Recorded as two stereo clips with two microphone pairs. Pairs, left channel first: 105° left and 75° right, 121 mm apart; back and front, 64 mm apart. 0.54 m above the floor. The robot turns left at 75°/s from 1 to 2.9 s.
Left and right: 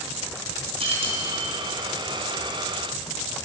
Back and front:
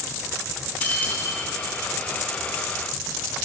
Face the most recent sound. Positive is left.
turn(degrees=105)